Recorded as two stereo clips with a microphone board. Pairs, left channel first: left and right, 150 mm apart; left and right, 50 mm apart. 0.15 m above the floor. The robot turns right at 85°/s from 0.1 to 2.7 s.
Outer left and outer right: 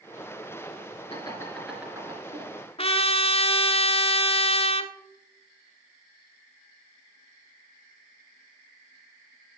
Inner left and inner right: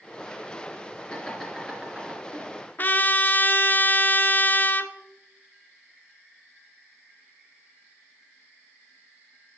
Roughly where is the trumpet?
Left.